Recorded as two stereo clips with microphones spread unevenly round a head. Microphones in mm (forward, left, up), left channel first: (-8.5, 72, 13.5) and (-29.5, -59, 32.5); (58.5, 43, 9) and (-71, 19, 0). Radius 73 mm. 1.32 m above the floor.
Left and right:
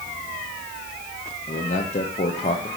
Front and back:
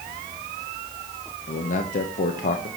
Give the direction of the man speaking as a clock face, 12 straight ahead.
11 o'clock.